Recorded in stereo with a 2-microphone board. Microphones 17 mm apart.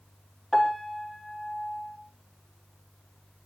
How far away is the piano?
About 5.5 m.